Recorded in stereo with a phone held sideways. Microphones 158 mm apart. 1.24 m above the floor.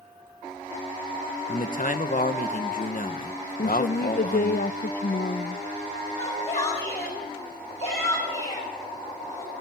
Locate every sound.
1.5 s a man speaking: 55° left (ahead or behind), 1.4 m
3.6 s a woman speaking: 65° left (ahead or behind), 0.6 m
6.2 s a shout: 45° left (ahead or behind), 8.5 m